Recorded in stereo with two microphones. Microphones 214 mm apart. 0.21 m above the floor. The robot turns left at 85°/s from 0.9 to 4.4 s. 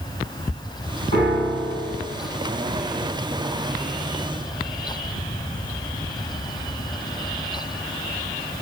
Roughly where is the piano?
Ahead left.